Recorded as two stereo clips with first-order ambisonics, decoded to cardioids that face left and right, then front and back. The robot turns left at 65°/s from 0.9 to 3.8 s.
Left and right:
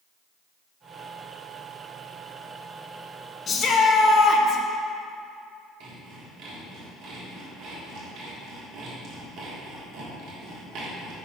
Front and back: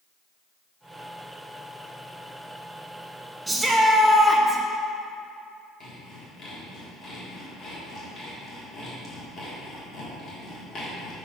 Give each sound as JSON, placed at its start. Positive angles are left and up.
{"t": 3.5, "sound": "a shout", "azimuth_deg": 115, "distance_m": 0.5}
{"t": 5.8, "sound": "sawing", "azimuth_deg": -55, "distance_m": 1.4}